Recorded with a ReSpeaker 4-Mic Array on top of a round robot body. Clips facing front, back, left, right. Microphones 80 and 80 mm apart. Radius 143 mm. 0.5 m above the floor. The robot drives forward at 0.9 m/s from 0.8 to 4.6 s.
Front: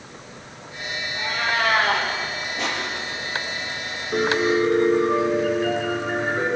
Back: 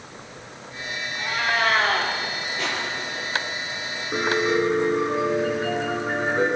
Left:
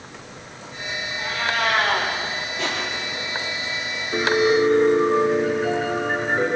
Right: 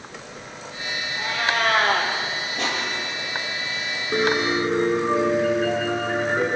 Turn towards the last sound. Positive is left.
turn(degrees=-115)